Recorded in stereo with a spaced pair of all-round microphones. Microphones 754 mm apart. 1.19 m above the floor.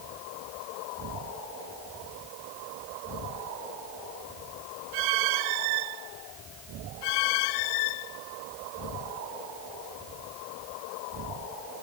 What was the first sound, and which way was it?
Only background noise.